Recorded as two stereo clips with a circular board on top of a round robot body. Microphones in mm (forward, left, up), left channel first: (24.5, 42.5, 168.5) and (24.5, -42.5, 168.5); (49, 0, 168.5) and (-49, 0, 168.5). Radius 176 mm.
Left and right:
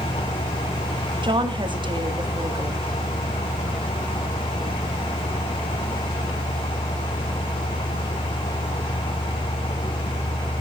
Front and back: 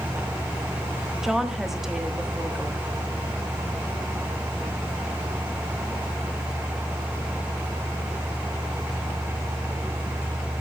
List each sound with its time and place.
1.2 s a woman speaking: 95° right, 1.8 m